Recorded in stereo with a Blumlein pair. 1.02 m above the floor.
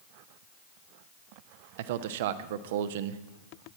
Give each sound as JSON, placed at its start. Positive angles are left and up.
{"t": 1.8, "sound": "a man speaking", "azimuth_deg": -55, "distance_m": 0.6}